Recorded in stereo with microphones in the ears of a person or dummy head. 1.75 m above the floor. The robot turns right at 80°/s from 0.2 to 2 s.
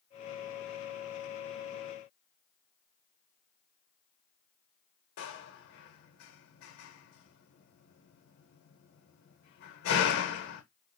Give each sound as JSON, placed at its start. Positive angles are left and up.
{"t": 5.2, "sound": "a door slam", "side_deg": 60, "distance_m": 1.2}